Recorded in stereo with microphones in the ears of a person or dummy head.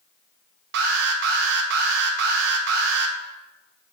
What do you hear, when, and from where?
0.7 s an alarm: 60° right (ahead or behind), 0.9 m